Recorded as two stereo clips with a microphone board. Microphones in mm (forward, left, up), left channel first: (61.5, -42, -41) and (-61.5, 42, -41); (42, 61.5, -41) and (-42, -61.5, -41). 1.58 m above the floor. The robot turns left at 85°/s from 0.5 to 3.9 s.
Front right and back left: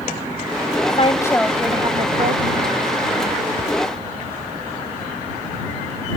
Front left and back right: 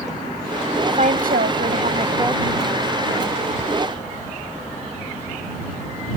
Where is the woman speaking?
75° right; by 3.0 s 110° left.